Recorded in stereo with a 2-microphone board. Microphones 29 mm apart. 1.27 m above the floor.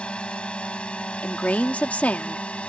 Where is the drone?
40° left (ahead or behind); by 2.7 s 45° left (ahead or behind).